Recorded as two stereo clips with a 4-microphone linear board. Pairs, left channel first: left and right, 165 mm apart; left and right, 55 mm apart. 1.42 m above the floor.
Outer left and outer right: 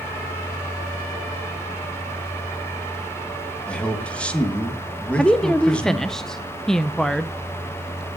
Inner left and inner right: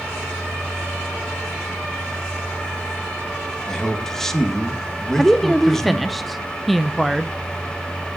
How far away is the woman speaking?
About 0.5 m.